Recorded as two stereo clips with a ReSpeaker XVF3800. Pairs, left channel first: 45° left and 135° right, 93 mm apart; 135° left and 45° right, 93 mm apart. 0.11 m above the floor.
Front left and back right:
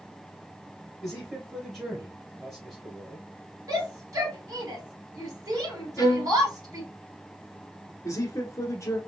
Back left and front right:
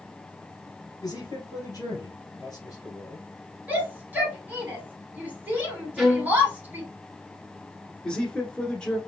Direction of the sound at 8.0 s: 65° left.